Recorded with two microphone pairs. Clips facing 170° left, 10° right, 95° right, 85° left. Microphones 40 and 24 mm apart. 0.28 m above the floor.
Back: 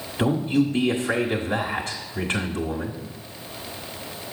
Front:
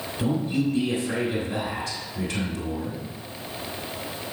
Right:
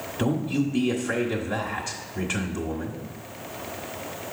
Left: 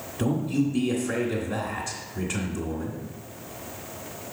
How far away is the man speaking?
About 1.4 m.